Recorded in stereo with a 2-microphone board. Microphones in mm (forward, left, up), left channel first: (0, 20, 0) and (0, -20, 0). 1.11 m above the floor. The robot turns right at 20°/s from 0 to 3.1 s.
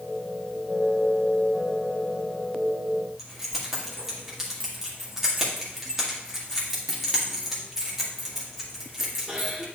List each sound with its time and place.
3.2 s keys jangling: 10° right (ahead or behind), 1.7 m